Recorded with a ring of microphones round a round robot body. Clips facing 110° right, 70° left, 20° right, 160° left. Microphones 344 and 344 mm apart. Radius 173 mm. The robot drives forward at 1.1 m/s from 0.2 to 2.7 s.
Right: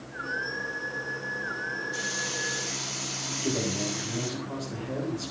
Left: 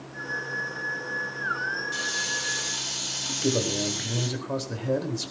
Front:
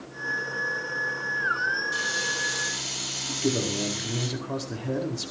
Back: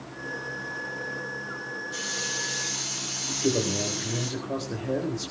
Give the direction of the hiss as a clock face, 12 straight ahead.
11 o'clock.